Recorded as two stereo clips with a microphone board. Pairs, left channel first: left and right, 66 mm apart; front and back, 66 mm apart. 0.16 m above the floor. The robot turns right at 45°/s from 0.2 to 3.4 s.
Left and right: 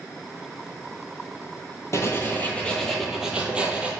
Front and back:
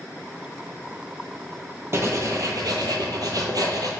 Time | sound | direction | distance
1.9 | writing | 135° left | 0.6 m